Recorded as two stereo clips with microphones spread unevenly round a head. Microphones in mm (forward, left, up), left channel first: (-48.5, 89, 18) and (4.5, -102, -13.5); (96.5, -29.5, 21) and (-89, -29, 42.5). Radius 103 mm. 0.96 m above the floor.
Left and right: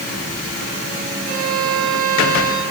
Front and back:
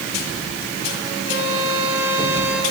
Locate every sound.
1.3 s a violin: 25° right, 6.5 m